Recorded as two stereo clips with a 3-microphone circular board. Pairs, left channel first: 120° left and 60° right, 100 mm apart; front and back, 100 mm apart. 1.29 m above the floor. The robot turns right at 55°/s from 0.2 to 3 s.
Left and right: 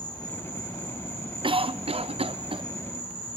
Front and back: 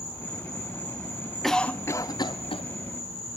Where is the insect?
40° left, 8 m; by 3.4 s 165° right, 8 m.